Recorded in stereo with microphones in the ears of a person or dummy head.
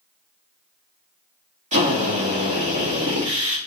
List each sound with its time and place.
1.7 s a drill: 35° right (ahead or behind), 2 m